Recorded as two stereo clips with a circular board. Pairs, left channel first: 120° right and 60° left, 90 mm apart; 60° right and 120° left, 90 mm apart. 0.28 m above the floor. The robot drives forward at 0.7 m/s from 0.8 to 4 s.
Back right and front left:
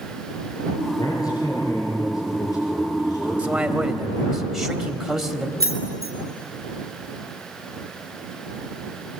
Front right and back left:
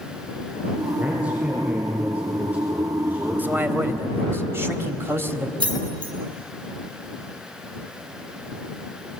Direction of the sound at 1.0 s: 165° right.